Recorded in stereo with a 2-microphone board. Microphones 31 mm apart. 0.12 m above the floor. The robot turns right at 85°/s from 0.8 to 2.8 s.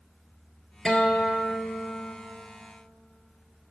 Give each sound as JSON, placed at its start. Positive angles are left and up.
{"t": 0.8, "sound": "a guitar", "azimuth_deg": 30, "distance_m": 0.8}